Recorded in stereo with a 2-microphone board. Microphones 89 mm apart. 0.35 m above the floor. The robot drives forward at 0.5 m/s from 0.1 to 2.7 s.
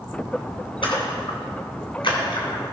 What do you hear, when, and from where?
0.8 s a splash: 75° left (ahead or behind), 2.5 m; by 2.6 s 65° left (ahead or behind), 3 m